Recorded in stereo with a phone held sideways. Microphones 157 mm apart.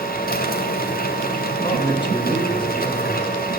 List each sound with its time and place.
0.0 s a machine running: 65° left (ahead or behind), 3 m
1.6 s a man speaking: 30° left (ahead or behind), 6 m